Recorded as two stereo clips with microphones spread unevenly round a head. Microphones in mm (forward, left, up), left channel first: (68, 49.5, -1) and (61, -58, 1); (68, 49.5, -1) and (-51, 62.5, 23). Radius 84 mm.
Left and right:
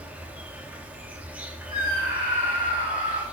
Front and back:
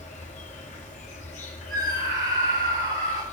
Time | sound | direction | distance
0.0 | an insect | 20° right | 1.8 m
1.7 | a scream | 160° right | 5.5 m